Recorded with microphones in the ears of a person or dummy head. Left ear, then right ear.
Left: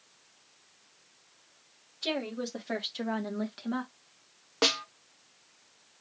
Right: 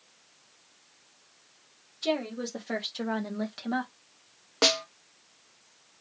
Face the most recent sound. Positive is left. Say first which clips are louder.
# right 3 dB
turn(degrees=0)  # may be behind; listen again after turning